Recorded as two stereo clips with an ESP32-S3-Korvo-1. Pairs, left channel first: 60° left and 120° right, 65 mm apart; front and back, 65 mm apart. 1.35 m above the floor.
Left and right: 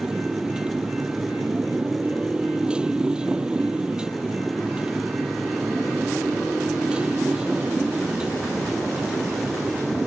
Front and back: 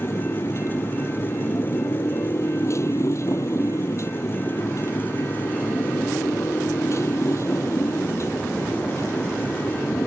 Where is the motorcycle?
45° right.